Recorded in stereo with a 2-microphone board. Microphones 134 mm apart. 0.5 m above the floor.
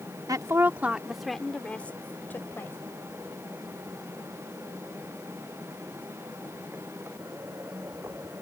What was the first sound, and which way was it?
A woman speaking, 25° right (ahead or behind).